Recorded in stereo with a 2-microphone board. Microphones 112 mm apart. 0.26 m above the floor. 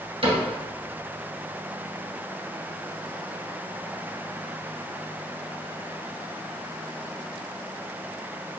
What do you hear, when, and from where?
0.2 s a cupboard door: 60° right (ahead or behind), 1.9 m